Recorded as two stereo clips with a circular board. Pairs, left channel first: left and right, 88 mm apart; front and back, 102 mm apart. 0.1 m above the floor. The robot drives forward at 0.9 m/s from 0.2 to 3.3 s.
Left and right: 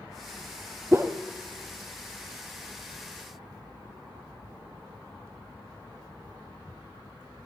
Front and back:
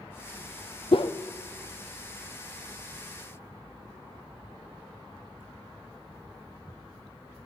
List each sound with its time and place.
0.9 s a whoosh: 25° right, 0.7 m; by 1.1 s 35° right, 0.5 m